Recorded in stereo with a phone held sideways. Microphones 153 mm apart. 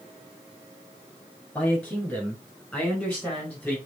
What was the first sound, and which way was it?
A man speaking, 10° left (ahead or behind).